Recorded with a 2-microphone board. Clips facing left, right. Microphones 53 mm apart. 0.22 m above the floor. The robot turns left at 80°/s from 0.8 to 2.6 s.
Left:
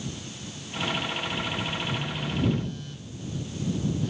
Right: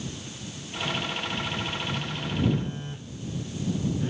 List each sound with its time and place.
1.9 s a phone buzzing: 25° left; by 4.1 s 30° right